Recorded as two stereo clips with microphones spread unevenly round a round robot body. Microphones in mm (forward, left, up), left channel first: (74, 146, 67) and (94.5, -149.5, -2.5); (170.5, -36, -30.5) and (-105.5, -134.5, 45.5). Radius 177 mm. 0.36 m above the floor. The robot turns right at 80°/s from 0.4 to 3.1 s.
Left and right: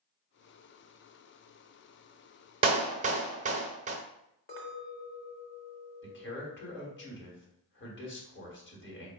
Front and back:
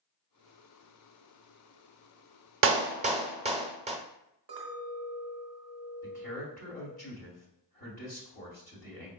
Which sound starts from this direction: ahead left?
A man speaking, at 6.0 s.